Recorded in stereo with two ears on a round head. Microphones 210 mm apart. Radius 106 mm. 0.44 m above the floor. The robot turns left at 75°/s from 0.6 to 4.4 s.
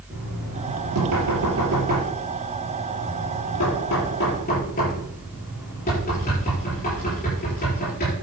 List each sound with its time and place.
0.1 s knocking: 35° right (ahead or behind), 6.5 m; by 8.1 s 40° left (ahead or behind), 6.5 m